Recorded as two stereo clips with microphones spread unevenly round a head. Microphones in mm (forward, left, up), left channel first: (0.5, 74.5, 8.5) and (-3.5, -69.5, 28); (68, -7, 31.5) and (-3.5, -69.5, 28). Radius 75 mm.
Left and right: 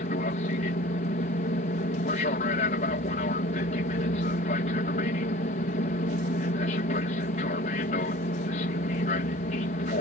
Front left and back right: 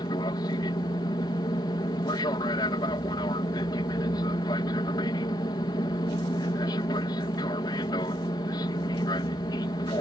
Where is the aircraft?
90° left.